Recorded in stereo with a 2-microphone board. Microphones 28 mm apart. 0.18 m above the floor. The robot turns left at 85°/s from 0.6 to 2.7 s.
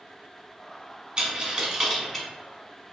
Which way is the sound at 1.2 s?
35° right (ahead or behind).